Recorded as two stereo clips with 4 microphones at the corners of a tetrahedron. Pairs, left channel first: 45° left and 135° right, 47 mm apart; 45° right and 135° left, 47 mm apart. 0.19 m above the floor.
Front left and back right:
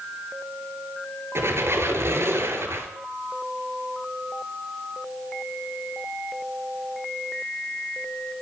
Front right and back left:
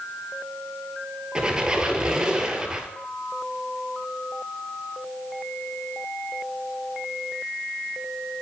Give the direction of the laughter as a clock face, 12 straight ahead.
I don't hear laughter.